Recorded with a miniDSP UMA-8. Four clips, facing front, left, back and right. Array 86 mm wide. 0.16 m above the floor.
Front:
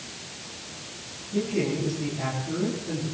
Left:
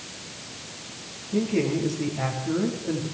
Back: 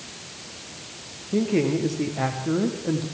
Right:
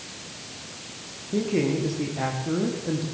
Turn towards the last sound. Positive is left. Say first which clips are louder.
# even, back 4 dB
turn(degrees=-165)